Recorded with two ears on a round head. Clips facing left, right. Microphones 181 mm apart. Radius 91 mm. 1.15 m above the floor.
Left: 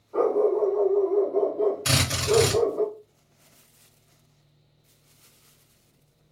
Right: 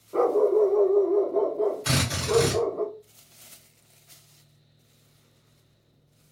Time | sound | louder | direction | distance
0.1 | a dog barking | right 1 dB | 55° right (ahead or behind) | 1.4 m
1.9 | a drill | left 2 dB | 30° left (ahead or behind) | 1.7 m